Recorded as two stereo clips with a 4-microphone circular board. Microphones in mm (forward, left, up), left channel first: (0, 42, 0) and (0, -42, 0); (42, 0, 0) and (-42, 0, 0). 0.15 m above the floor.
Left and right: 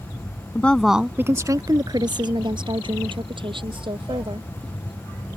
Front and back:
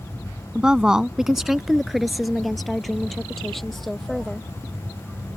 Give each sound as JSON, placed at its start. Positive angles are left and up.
{"t": 0.6, "sound": "a woman speaking", "azimuth_deg": 115}